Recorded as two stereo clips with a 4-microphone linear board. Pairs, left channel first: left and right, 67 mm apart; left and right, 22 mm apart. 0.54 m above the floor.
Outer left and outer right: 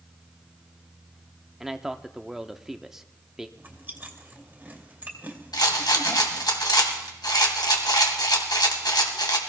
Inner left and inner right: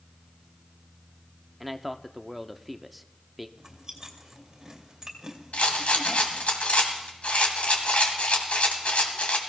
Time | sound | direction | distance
1.6 | a man speaking | 5° right (ahead or behind) | 0.7 m
3.6 | chewing | 25° right (ahead or behind) | 2 m
5.5 | a rattle | 80° left | 2 m